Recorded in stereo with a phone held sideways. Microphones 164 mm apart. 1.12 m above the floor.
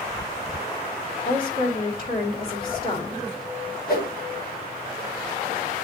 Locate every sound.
1.2 s a woman speaking: 65° left (ahead or behind), 2.5 m
3.9 s a whoosh: 65° left (ahead or behind), 1.6 m